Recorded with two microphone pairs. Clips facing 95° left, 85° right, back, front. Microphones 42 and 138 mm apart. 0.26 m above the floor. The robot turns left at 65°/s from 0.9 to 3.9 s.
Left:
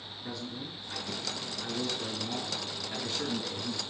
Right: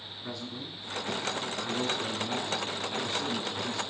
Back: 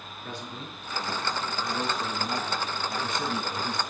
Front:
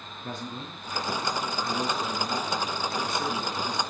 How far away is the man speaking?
About 2.5 m.